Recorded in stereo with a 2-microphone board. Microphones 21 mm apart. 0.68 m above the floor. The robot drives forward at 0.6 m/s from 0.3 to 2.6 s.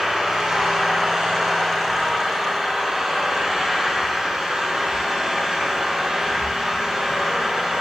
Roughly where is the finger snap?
I don't hear a finger snap.